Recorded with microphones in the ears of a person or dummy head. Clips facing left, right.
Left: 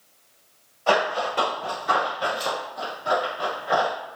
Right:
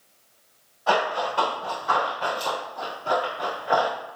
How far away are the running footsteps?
About 1.7 m.